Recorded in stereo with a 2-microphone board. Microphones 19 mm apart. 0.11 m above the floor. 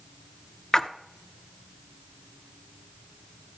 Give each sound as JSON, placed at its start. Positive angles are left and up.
{"t": 0.7, "sound": "a splash", "side_deg": 30, "distance_m": 0.6}